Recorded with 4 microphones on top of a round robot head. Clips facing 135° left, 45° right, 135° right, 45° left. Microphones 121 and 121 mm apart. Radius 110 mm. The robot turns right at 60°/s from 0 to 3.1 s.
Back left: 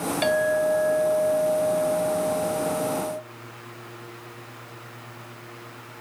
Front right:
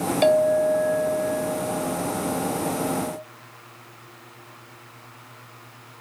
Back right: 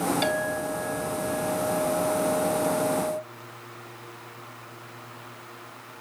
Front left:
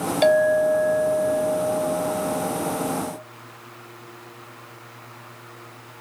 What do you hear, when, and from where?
0.2 s a clink: 15° left, 1.8 m; by 3.2 s 175° right, 1.8 m